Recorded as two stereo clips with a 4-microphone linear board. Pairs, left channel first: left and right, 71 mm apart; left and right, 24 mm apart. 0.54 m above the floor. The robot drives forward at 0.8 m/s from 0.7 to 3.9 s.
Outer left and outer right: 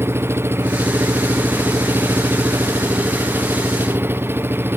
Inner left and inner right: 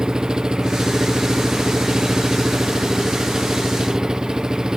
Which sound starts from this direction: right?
An engine running, at 0.0 s.